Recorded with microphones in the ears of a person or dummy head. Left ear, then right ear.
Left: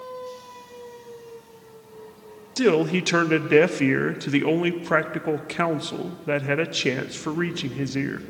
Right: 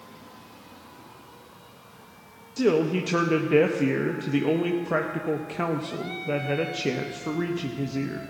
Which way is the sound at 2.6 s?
45° left (ahead or behind).